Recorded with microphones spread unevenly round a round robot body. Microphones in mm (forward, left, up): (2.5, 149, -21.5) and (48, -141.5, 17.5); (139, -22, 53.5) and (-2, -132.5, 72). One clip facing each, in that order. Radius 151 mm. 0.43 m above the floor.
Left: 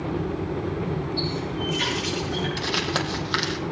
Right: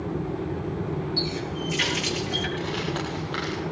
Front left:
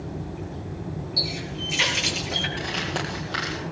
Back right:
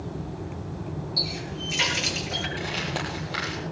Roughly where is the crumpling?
Behind left.